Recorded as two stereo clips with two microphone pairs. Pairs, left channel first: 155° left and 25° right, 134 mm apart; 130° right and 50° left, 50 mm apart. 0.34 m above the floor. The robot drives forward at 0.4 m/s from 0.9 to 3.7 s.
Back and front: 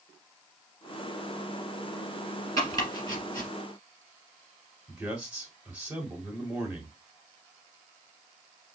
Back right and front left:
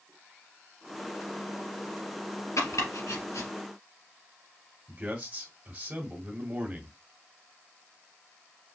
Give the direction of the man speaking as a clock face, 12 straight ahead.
10 o'clock.